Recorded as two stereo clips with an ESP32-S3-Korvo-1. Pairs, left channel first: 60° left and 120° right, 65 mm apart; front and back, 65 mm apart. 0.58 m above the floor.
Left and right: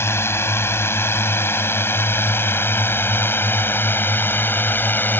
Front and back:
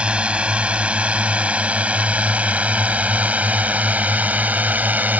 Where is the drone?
105° left; by 5.2 s 115° left.